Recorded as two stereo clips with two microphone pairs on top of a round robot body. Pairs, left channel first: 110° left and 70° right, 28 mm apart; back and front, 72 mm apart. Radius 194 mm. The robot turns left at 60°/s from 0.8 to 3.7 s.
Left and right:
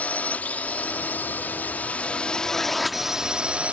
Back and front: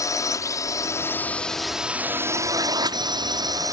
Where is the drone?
145° left; by 3.7 s 30° right.